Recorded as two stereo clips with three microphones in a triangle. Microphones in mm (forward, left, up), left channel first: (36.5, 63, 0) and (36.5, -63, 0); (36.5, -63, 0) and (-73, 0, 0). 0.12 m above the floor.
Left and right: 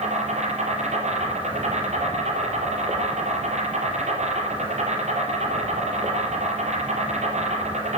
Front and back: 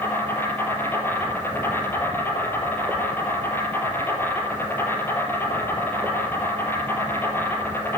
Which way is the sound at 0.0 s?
100° right.